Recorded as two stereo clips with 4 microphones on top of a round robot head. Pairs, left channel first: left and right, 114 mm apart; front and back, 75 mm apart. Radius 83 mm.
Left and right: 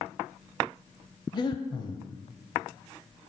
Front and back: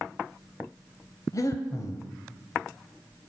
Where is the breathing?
40° left, 0.9 m.